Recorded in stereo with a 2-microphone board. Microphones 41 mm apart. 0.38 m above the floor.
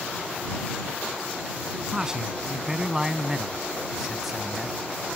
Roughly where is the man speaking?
Centre.